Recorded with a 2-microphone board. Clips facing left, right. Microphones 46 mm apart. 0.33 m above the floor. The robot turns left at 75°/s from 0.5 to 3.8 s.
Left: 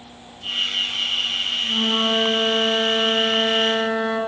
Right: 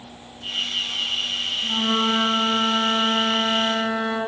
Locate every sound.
1.6 s a flute: 20° right, 0.6 m; by 4.2 s 175° left, 0.6 m